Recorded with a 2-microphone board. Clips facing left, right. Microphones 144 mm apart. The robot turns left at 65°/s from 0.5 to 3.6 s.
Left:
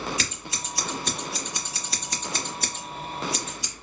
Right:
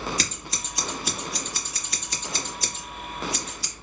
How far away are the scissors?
About 1.1 m.